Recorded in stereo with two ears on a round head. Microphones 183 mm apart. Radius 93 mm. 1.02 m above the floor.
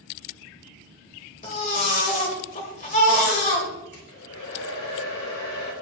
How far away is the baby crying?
About 1.9 m.